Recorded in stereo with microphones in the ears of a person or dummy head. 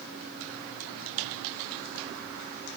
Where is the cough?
No cough in this recording.